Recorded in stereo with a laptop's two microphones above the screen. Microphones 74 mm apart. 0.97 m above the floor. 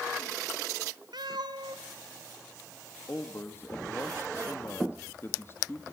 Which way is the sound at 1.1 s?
75° right (ahead or behind).